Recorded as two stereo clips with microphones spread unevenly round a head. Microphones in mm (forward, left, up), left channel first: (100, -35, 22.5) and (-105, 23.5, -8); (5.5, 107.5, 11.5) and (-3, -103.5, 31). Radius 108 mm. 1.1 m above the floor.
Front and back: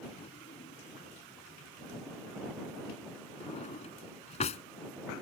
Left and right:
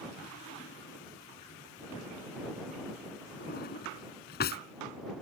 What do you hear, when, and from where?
0.2 s a drawer: 45° left